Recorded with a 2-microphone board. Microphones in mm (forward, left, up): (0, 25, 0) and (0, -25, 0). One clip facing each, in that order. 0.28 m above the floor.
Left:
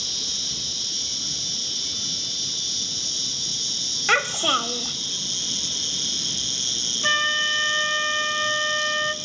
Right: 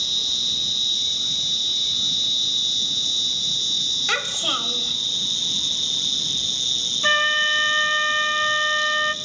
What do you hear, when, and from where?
0.0 s an insect: 60° left (ahead or behind), 1.0 m
4.1 s a child speaking: 25° left (ahead or behind), 1.1 m
7.0 s a flute: 15° right (ahead or behind), 0.8 m